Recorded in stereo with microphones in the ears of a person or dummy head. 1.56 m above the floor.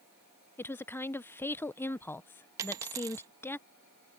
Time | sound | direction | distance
0.6 | a woman speaking | 10° left (ahead or behind) | ?
2.6 | a dropped coin | 20° right (ahead or behind) | ?